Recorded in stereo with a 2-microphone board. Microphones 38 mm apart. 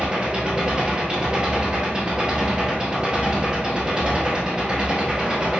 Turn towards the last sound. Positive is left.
turn(degrees=-25)  # may be behind; listen again after turning